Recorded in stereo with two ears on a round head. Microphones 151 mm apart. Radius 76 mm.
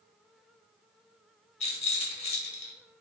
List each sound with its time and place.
1.6 s a rattle: 40° left (ahead or behind), 0.9 m